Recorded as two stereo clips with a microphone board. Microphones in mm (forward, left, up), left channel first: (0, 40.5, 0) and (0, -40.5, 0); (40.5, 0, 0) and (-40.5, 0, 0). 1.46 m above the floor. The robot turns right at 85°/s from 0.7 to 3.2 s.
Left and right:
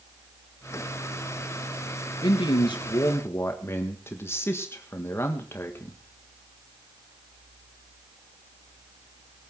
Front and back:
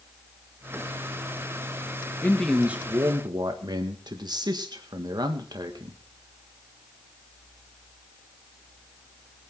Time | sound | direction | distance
2.2 | a man speaking | 65° left | 1.7 m